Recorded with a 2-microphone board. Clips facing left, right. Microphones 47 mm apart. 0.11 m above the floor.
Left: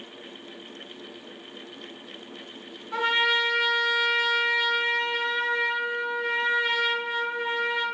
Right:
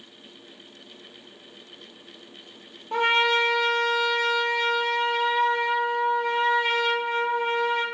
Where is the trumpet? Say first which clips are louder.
Right 2 dB; 70° right (ahead or behind), 0.6 m.